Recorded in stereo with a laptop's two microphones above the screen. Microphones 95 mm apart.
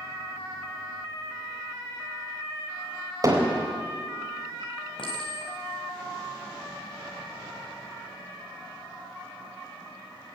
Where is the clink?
65° left (ahead or behind), 4 m.